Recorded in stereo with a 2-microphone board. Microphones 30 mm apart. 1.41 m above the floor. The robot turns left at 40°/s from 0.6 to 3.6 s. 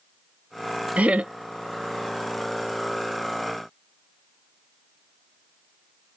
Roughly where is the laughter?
Right.